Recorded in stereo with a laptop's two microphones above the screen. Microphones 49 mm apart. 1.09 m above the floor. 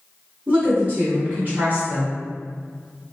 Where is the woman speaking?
30° right (ahead or behind), 1.2 m.